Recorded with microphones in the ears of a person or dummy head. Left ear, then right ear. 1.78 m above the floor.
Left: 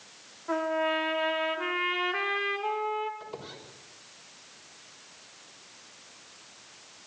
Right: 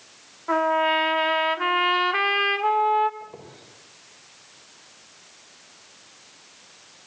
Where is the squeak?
70° left (ahead or behind), 6 m.